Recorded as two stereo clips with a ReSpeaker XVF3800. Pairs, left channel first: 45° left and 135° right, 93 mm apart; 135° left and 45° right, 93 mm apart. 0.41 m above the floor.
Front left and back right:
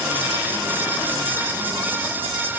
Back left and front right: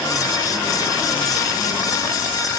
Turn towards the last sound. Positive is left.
No sound to turn to.